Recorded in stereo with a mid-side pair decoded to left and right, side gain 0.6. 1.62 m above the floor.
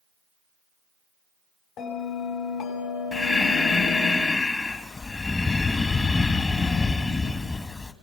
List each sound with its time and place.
1.8 s a bell: 60° left, 7 m
3.1 s breathing: 25° left, 2 m